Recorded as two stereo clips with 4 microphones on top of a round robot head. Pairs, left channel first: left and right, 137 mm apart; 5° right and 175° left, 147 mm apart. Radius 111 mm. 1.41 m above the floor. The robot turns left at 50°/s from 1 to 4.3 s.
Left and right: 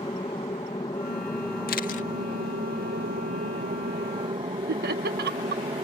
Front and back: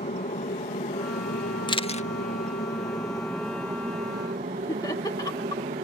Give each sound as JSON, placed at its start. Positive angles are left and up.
{"t": 0.0, "sound": "an aircraft", "azimuth_deg": 25}
{"t": 1.7, "sound": "a camera shutter", "azimuth_deg": 55}
{"t": 4.7, "sound": "laughter", "azimuth_deg": -80}